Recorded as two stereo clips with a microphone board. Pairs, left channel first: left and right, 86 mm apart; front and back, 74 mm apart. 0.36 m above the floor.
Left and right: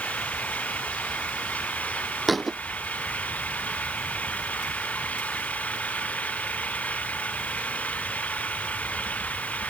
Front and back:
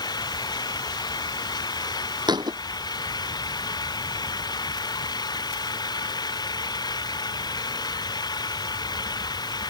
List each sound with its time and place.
0.0 s an engine running: 15° left
2.3 s a thud: straight behind